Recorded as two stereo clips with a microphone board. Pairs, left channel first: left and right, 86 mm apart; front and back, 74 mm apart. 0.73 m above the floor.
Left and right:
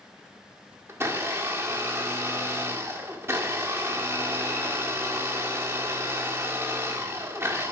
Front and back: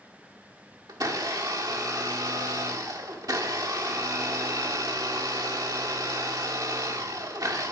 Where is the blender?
150° right, 1.5 m.